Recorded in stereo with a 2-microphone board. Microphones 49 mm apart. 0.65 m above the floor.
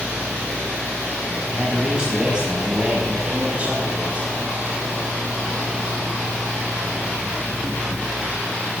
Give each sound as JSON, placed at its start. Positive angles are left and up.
{"t": 1.5, "sound": "a man speaking", "side_deg": -10, "distance_m": 6.0}